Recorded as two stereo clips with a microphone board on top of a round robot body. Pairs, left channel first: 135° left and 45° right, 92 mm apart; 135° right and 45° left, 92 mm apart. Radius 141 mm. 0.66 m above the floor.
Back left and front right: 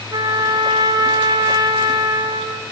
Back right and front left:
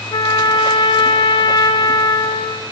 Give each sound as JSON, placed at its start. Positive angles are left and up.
{"t": 0.1, "sound": "a trumpet", "azimuth_deg": -90, "distance_m": 0.9}